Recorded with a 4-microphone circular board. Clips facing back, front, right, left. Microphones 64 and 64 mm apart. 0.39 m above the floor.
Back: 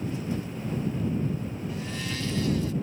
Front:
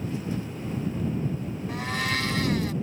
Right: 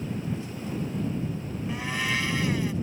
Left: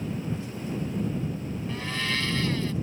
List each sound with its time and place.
1.7 s a blender: 15° right